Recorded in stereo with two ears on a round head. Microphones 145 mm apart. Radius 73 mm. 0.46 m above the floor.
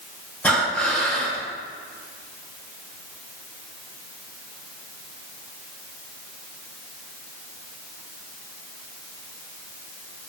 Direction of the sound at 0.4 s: 10° left (ahead or behind).